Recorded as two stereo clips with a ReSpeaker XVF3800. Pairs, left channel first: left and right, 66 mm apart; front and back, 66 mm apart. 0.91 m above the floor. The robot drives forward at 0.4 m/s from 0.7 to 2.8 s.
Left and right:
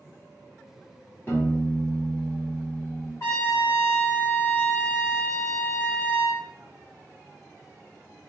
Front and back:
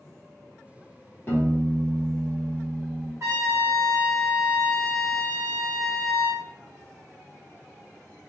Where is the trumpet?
135° left, 2.0 m.